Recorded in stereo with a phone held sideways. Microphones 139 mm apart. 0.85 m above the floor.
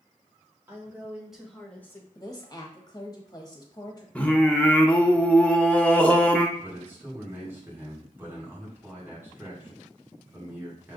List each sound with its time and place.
0.7 s a woman speaking: 15° right (ahead or behind), 2 m; by 2.0 s 20° left (ahead or behind), 1.2 m
2.1 s a woman speaking: 25° left (ahead or behind), 1.0 m
4.2 s singing: 10° left (ahead or behind), 0.7 m
6.6 s a man speaking: 15° right (ahead or behind), 2.5 m